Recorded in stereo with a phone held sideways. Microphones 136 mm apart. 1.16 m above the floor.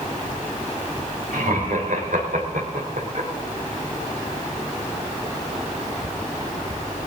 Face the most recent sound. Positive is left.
turn(degrees=-70)  # may be behind; listen again after turning